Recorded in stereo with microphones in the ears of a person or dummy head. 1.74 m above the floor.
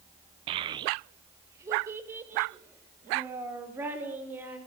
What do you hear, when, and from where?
0.5 s a child speaking: 35° right (ahead or behind), 0.6 m; by 4.6 s 20° right (ahead or behind), 6 m